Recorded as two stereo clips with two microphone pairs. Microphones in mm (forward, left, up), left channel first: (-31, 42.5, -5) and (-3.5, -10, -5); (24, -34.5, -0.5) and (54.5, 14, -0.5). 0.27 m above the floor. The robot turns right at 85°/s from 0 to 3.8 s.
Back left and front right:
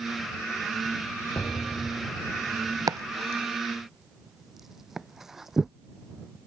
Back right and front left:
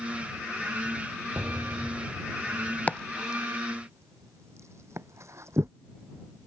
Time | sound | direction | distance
1.4 | an explosion | 105° left | ?
2.9 | chopping | 55° right | ?